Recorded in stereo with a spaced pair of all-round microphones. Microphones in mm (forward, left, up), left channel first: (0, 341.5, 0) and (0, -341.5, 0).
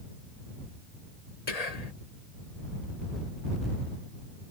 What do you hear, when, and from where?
1.5 s whispering: 65° left (ahead or behind)